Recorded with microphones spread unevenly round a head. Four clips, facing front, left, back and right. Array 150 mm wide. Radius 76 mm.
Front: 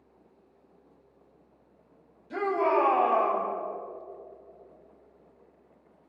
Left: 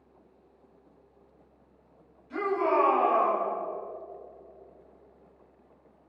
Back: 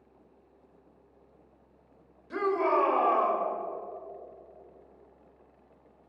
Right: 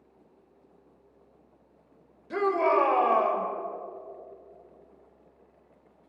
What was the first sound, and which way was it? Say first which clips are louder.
A shout: right 2 dB, front 1 dB; 100° right.